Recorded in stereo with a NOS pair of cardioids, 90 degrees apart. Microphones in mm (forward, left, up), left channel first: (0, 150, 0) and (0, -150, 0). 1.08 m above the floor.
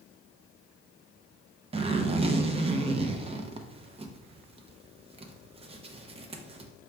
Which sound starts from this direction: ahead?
A zipper, at 1.7 s.